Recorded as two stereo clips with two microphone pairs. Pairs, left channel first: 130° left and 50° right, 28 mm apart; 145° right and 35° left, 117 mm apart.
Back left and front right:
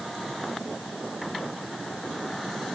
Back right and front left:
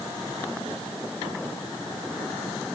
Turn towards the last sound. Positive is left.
No sound to turn to.